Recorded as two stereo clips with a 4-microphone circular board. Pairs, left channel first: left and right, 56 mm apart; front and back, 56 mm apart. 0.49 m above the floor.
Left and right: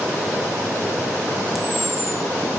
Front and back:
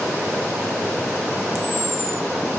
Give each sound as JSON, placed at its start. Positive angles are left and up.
{"t": 1.6, "sound": "a camera shutter", "azimuth_deg": 180, "distance_m": 1.7}